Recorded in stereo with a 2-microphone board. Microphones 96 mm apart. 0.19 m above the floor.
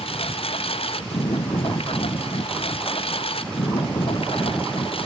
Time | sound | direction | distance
0.0 | a lawn mower | 90° left | ?